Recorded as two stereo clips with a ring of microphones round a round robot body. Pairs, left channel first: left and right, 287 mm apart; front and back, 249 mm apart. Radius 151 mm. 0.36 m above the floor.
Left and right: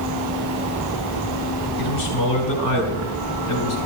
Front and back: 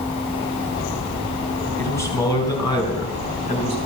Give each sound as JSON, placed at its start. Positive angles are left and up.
{"t": 1.8, "sound": "a man speaking", "azimuth_deg": 80, "distance_m": 4.0}